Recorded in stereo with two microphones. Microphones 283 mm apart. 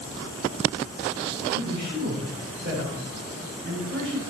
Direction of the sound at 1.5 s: 45° right (ahead or behind).